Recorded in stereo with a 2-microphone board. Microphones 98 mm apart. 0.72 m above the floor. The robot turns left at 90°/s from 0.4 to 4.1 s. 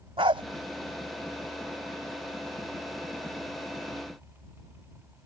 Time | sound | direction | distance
0.2 | a dog barking | 75° right (ahead or behind) | ?